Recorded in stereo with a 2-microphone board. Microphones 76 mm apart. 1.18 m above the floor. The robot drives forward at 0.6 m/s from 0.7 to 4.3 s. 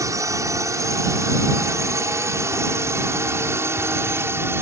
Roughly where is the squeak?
I don't hear a squeak.